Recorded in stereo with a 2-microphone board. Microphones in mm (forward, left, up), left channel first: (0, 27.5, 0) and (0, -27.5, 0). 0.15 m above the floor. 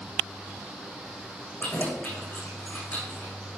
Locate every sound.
1.6 s keys jangling: 35° left (ahead or behind), 8 m